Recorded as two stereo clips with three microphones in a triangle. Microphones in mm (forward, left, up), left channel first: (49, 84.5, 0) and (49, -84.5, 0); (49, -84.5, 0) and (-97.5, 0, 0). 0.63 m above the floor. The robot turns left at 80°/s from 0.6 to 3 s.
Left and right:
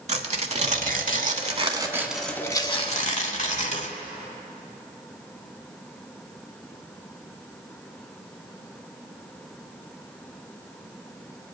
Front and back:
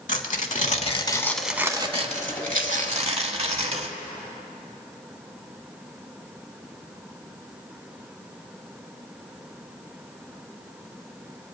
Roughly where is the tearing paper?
Ahead right.